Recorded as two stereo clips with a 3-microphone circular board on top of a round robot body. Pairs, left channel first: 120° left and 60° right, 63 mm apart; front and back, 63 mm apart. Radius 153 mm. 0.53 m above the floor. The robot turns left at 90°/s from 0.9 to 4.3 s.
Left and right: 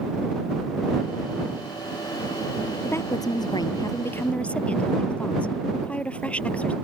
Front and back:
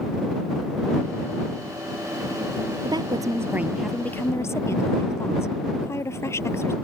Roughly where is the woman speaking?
Behind.